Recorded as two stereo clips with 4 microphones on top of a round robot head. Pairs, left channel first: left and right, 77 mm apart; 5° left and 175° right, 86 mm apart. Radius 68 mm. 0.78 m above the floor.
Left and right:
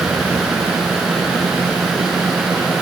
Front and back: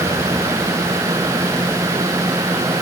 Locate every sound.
Only background noise.